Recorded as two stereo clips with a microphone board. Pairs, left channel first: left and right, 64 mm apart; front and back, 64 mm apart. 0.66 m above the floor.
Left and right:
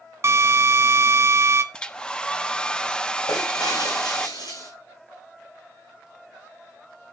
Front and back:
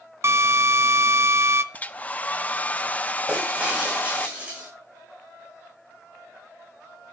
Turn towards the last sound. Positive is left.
turn(degrees=110)